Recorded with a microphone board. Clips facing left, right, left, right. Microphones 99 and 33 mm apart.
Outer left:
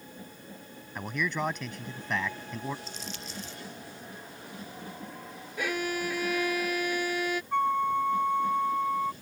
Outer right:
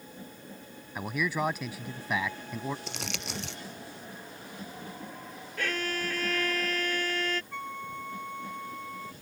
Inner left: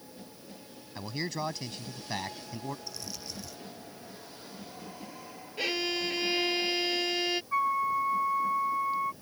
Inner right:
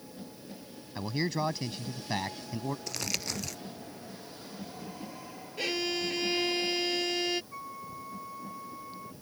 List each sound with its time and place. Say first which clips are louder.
0.9 s a man speaking: outer right 1 dB, inner right 3 dB; 5° right (ahead or behind)
2.9 s crumpling: outer right 3 dB, inner right 7 dB; 75° right (ahead or behind)
5.6 s a violin: outer left 2 dB, inner left 1 dB; 10° left (ahead or behind)
7.5 s a flute: outer left 13 dB, inner left 15 dB; 50° left (ahead or behind)